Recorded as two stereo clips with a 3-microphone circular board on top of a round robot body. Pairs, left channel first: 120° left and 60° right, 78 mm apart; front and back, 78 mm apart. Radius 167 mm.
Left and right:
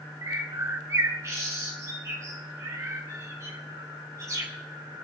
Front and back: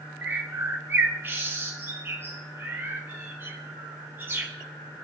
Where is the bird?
115° right, 0.8 m.